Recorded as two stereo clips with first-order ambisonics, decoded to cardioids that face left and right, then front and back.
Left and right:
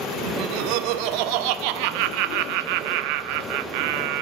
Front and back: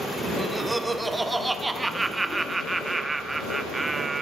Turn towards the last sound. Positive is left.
turn(degrees=-95)